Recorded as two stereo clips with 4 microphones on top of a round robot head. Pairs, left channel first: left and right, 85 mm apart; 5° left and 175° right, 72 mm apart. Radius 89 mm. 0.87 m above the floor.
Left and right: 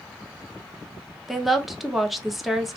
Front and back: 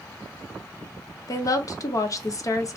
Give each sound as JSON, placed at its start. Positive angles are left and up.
{"t": 1.3, "sound": "a woman speaking", "azimuth_deg": 0, "distance_m": 0.8}